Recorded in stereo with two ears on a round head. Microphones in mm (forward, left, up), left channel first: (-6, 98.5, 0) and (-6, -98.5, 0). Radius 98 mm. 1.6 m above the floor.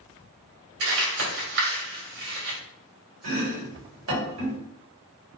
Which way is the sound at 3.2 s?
70° right (ahead or behind).